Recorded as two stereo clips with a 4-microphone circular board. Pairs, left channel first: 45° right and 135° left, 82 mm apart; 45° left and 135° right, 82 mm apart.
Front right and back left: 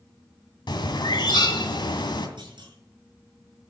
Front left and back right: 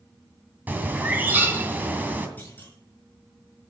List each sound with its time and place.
0.7 s a bird: 65° right, 2 m
2.4 s a clunk: 115° left, 6 m